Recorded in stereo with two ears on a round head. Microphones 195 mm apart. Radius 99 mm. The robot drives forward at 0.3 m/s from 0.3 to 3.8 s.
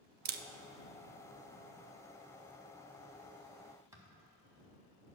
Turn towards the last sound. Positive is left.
turn(degrees=-15)  # may be behind; listen again after turning